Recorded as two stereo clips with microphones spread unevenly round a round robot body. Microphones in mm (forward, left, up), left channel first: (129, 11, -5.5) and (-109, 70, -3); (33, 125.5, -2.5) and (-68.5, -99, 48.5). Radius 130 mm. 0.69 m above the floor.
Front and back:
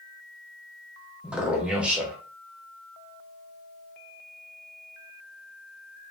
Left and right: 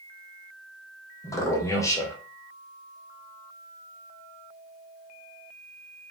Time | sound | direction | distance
1.2 | a man speaking | 85° left | 0.6 m